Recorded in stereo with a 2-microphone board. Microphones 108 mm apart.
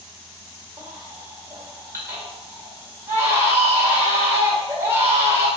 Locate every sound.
0.8 s a baby crying: 25° right (ahead or behind), 1.9 m